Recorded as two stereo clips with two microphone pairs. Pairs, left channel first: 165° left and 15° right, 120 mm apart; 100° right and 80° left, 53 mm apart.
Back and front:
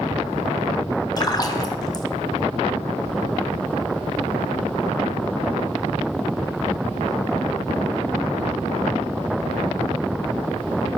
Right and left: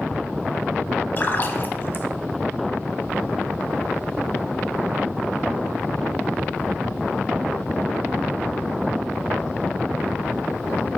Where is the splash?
140° right, 0.6 m.